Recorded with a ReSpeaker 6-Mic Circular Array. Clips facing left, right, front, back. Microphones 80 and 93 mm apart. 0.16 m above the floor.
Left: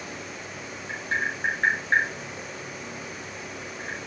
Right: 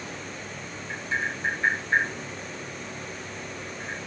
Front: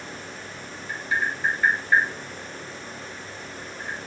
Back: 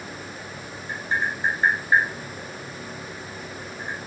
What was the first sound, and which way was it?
Tapping, 120° left.